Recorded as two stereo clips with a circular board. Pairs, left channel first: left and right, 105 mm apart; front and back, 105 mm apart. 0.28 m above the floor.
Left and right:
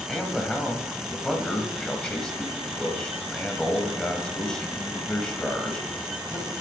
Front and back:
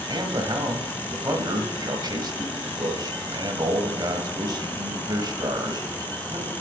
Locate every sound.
0.1 s a man speaking: 170° left, 1.4 m